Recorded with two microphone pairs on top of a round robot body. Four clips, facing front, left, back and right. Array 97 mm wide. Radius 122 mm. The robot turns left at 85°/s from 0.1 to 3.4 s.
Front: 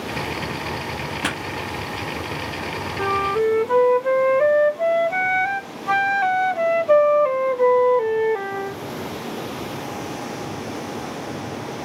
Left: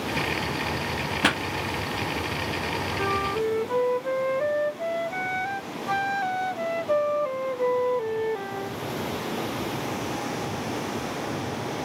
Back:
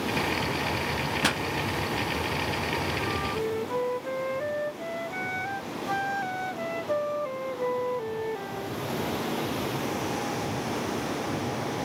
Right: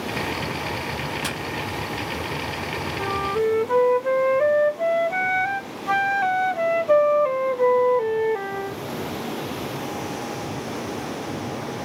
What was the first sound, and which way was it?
A pop, 90° left.